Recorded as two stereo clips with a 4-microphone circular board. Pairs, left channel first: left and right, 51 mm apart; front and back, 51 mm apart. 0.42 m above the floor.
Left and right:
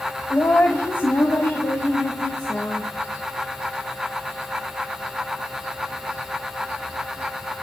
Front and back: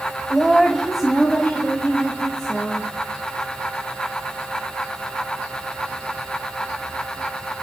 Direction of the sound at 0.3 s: 100° left.